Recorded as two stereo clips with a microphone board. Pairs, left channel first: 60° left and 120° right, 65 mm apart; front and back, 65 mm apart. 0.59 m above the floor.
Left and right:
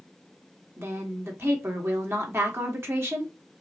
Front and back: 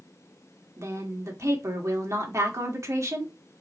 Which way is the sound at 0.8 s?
155° right.